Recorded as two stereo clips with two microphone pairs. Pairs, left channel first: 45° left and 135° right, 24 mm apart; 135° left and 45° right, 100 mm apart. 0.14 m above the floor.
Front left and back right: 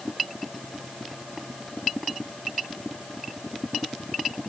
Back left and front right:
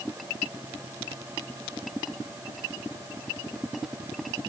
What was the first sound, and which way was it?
Only background noise.